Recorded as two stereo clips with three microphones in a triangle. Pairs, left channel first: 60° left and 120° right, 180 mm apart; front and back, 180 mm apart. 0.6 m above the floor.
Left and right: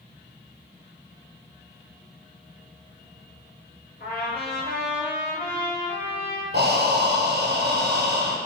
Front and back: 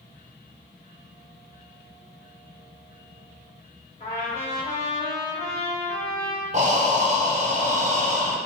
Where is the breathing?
135° right, 0.5 m.